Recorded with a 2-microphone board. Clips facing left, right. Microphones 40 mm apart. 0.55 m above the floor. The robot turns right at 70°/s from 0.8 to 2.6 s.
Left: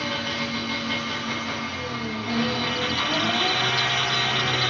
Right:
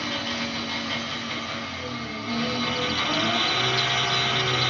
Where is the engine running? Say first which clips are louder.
Left 1 dB; 25° left, 0.9 m; by 4.7 s 150° left, 0.9 m.